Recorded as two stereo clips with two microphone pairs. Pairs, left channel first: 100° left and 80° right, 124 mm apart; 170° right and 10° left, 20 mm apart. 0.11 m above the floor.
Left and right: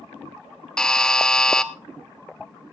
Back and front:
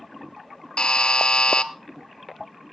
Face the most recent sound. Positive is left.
turn(degrees=-175)